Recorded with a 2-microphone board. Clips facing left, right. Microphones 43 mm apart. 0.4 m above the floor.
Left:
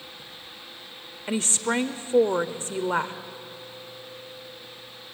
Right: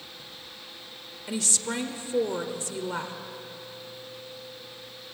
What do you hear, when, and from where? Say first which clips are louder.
1.3 s a woman speaking: left 5 dB; 35° left (ahead or behind), 1.0 m